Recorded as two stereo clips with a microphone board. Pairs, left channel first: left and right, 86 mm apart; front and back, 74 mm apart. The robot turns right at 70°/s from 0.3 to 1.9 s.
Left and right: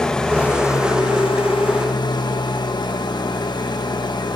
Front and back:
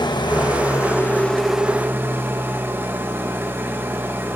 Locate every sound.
0.0 s an engine running: 10° left, 1.5 m; by 4.4 s 120° left, 1.5 m